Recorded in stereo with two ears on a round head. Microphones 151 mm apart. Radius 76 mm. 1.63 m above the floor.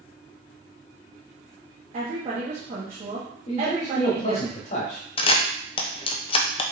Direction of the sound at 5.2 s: 30° left (ahead or behind).